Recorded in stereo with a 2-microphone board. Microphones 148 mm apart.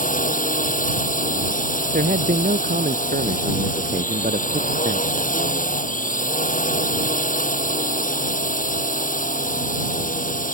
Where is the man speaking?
80° right.